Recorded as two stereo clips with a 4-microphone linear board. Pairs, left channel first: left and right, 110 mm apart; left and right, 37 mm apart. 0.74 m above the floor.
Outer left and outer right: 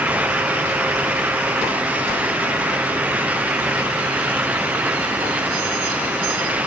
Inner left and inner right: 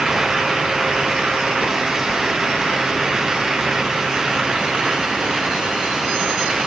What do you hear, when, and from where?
Only background noise.